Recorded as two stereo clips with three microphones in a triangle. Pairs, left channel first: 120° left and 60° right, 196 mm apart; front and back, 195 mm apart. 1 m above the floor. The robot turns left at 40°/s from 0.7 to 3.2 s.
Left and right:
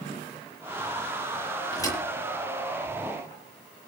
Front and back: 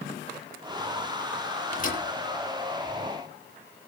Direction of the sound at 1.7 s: 50° left.